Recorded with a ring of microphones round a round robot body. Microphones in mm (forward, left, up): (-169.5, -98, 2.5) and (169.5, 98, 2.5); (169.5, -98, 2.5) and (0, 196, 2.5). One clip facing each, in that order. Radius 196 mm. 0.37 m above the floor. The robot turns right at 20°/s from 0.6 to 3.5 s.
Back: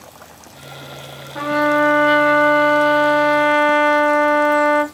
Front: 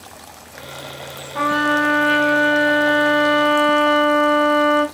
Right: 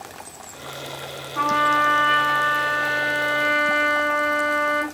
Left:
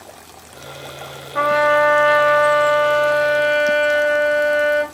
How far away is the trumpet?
About 1.3 m.